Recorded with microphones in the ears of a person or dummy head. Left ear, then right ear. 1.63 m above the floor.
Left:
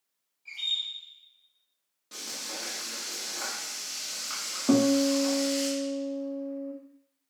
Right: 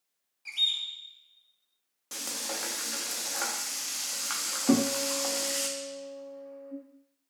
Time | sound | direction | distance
0.5 | a bird | 70° right (ahead or behind) | 0.7 m
2.1 | frying | 30° right (ahead or behind) | 0.6 m
4.7 | a guitar | 5° left (ahead or behind) | 0.8 m